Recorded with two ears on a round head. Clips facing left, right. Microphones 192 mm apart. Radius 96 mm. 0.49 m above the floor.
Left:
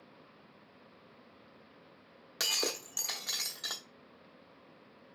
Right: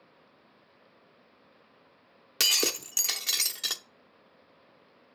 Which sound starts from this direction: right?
Breaking glass, at 2.4 s.